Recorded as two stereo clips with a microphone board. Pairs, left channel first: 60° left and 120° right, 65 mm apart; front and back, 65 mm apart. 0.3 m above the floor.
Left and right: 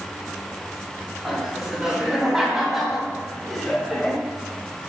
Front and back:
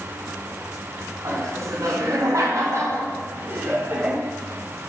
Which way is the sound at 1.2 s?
160° left.